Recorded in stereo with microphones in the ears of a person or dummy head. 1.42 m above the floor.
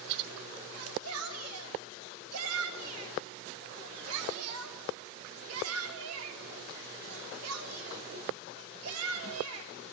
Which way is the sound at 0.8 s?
85° right.